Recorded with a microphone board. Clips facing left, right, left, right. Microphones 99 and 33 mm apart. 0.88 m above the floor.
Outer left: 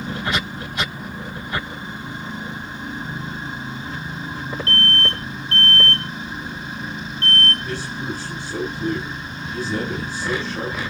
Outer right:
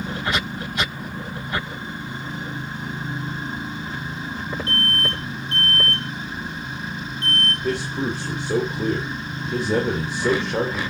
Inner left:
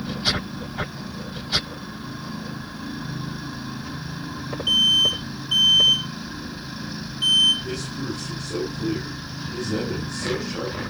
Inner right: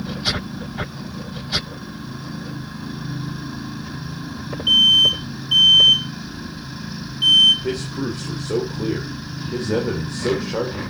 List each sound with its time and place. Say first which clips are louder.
4.7 s an alarm: outer left 5 dB, inner right 5 dB; 15° right (ahead or behind), 3 m
7.6 s a man speaking: outer right 4 dB, inner right 5 dB; 80° right, 3 m